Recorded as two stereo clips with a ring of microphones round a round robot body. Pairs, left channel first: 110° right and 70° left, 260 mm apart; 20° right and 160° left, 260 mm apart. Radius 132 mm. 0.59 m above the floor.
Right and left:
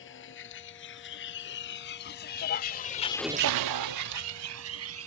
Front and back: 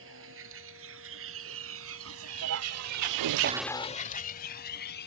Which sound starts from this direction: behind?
A vehicle, at 0.0 s.